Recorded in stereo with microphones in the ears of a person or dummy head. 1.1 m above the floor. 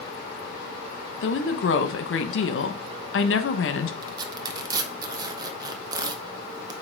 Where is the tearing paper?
25° right (ahead or behind), 0.7 m.